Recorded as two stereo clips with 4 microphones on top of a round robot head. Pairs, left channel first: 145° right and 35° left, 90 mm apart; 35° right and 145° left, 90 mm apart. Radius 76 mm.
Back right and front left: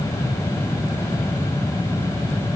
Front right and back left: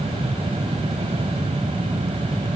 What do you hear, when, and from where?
Only background noise.